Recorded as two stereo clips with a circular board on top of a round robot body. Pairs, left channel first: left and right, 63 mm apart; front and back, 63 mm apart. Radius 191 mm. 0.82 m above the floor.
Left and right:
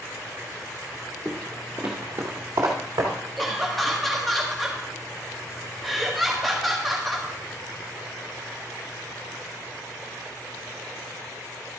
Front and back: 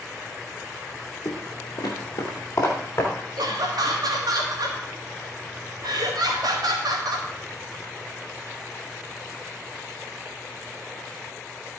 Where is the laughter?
175° left, 1.6 m.